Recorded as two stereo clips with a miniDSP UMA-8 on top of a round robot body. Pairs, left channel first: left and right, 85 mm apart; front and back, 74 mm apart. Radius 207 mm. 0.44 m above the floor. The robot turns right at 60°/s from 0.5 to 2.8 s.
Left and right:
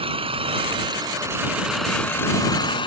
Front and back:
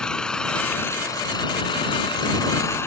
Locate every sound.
0.0 s an engine running: 80° right; by 2.9 s 60° left